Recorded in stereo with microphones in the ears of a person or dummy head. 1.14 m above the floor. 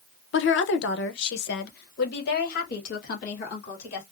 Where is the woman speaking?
60° left (ahead or behind), 0.6 m; by 4.0 s 45° left (ahead or behind), 2.5 m.